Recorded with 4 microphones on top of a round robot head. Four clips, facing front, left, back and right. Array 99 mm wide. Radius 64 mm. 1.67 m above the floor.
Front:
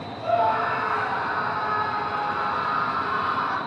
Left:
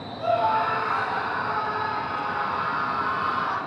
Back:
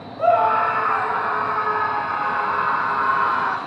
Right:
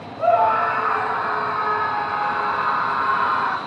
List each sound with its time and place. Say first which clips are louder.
0.2 s a scream: right 5 dB, back 5 dB; 145° right, 10 m; by 3.6 s 140° right, 7 m